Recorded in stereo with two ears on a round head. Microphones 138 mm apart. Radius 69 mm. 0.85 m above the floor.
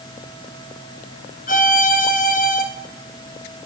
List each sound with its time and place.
1.5 s a violin: 55° left (ahead or behind), 1.2 m